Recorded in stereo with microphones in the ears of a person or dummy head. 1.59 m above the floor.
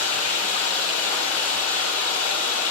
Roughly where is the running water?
Left.